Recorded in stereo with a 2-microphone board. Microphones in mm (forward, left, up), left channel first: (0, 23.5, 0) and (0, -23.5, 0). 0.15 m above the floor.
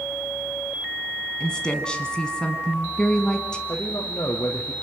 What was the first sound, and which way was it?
A woman speaking, 20° left (ahead or behind).